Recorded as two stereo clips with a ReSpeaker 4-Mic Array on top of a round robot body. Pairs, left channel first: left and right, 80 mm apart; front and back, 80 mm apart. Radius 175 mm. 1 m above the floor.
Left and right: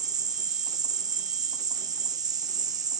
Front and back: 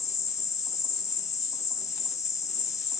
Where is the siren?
I don't hear a siren.